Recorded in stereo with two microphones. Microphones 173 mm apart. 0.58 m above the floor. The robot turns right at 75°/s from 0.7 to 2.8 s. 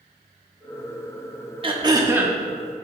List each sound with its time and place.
1.6 s throat clearing: 60° right, 0.7 m; by 2.4 s 5° right, 0.7 m